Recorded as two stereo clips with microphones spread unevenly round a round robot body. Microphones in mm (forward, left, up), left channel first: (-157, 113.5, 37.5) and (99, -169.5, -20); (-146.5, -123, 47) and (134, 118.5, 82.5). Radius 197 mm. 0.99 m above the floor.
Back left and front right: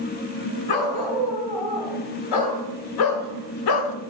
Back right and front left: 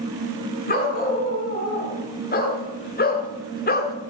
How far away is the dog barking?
About 4.5 m.